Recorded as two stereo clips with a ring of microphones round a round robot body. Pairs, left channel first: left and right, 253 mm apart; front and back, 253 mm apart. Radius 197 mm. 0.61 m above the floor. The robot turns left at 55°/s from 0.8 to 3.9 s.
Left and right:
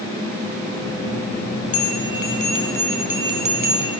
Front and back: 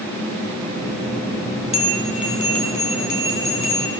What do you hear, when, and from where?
1.7 s a bell: 70° left, 3.5 m; by 3.9 s 50° right, 3.5 m